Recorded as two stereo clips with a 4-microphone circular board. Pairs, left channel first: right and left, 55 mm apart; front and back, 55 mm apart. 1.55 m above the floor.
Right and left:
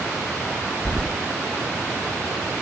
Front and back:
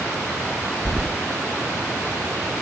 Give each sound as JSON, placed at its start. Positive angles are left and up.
{"t": 0.8, "sound": "keys jangling", "azimuth_deg": -65, "distance_m": 0.5}